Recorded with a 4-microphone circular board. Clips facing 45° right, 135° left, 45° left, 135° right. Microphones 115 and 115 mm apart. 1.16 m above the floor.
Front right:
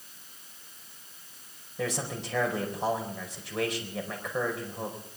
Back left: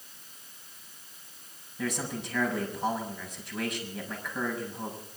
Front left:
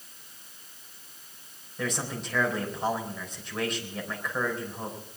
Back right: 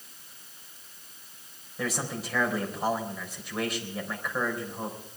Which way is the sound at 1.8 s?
50° right.